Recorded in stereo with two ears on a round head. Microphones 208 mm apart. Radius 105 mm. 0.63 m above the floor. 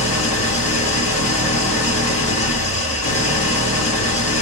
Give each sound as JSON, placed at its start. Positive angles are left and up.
{"t": 0.0, "sound": "an engine running", "side_deg": 65, "distance_m": 1.1}